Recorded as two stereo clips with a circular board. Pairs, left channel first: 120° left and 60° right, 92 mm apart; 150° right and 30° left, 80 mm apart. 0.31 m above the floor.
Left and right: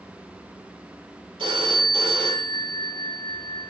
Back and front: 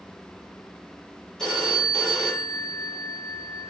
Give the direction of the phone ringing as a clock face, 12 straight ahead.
2 o'clock.